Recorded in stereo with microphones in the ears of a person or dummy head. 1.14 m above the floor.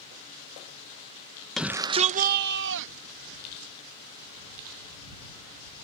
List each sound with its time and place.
1.6 s a shout: centre (ahead or behind); by 3.7 s 75° right (ahead or behind)